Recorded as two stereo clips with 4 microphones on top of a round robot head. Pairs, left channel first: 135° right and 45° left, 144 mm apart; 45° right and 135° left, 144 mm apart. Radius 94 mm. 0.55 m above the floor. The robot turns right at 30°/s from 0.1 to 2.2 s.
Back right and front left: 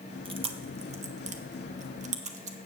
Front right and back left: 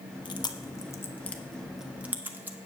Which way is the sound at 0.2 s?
5° left.